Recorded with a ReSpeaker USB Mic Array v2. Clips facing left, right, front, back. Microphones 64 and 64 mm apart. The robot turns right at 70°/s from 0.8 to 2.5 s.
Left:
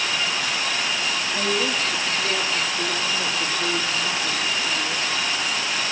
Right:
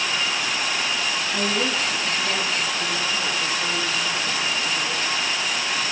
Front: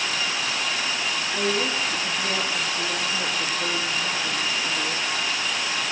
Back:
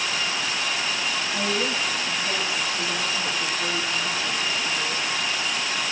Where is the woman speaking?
85° right, 6 m; by 5.0 s straight ahead, 6 m.